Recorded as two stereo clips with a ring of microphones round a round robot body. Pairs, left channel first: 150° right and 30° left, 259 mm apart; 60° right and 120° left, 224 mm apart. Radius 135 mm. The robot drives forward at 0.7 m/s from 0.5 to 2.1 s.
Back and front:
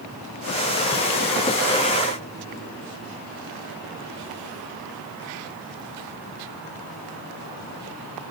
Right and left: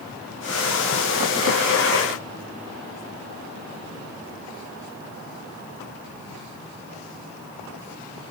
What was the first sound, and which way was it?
Only background noise.